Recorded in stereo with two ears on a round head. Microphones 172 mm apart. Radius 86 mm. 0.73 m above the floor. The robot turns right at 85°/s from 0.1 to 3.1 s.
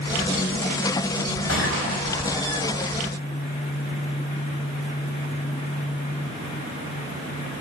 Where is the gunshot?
105° left, 4 m; by 2.8 s 145° right, 4 m.